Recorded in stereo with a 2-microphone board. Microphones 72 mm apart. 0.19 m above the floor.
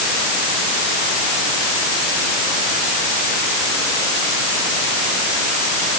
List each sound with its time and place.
Only background noise.